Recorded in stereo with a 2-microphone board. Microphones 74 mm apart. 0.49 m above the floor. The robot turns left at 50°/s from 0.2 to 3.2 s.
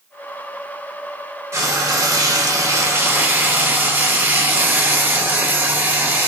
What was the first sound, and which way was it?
Frying, 55° right.